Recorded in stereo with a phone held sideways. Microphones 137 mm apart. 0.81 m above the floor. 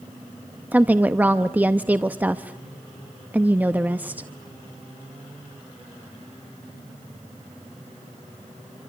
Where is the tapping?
No tapping in this recording.